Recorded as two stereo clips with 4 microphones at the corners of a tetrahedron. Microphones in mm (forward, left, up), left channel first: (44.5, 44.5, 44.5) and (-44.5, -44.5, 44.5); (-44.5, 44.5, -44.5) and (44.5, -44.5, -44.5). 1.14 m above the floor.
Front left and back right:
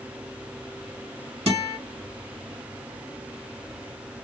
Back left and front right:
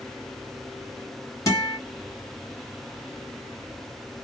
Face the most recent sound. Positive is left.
turn(degrees=-165)